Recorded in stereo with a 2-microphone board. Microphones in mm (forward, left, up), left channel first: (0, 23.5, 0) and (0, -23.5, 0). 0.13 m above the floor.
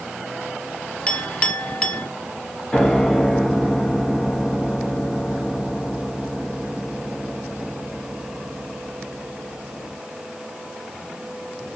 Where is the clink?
25° left (ahead or behind), 0.8 m.